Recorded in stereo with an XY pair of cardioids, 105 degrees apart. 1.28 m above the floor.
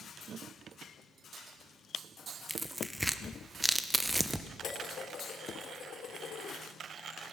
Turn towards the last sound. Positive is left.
turn(degrees=60)